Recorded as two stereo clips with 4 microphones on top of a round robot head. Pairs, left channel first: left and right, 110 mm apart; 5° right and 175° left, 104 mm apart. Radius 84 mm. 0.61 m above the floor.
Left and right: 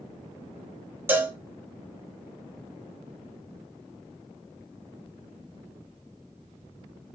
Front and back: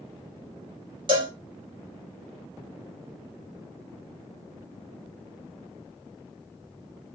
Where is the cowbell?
160° right, 2 m.